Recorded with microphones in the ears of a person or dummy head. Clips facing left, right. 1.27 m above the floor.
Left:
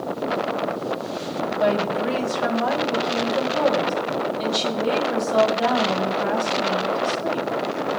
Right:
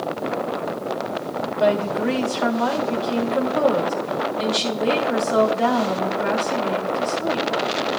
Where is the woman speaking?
35° right (ahead or behind), 3 m.